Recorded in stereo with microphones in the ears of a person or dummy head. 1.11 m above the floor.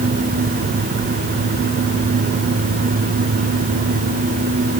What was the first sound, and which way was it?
Only background noise.